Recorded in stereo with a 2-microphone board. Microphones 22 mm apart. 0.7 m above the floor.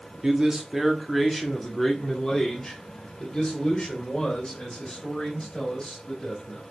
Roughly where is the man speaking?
Right.